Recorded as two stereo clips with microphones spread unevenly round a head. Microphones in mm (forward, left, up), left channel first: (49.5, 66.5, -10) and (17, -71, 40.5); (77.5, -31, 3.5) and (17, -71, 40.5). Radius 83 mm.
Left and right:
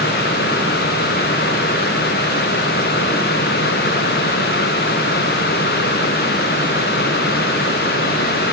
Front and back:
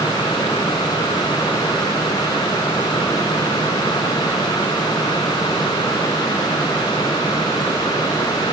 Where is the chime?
No chime in this recording.